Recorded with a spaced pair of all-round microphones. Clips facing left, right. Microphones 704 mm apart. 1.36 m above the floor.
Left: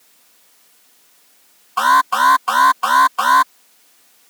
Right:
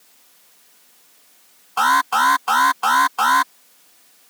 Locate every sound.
1.8 s an alarm: 10° left (ahead or behind)